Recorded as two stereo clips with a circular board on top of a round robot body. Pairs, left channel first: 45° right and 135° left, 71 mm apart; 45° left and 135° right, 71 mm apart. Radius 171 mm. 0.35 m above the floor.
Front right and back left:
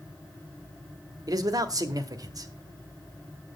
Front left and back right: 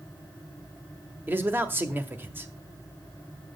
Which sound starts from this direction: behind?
A man speaking, at 1.3 s.